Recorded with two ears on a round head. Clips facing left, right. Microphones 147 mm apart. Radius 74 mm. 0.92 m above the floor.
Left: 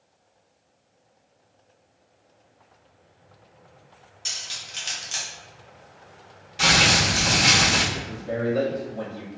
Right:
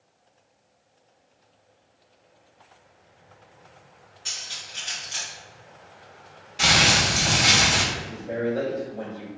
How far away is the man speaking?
About 1.8 m.